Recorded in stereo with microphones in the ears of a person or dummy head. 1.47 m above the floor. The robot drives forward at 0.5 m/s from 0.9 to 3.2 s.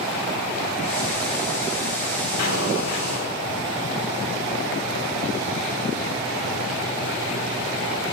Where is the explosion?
85° left, 9.5 m.